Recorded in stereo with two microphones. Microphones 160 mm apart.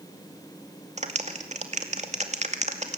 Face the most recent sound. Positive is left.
turn(degrees=-45)  # may be behind; listen again after turning